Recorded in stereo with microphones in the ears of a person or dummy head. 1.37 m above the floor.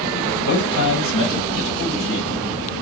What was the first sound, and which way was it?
A man speaking, 75° left (ahead or behind).